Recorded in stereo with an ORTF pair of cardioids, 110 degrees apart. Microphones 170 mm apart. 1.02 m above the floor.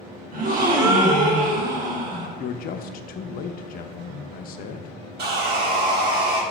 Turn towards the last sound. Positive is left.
turn(degrees=-65)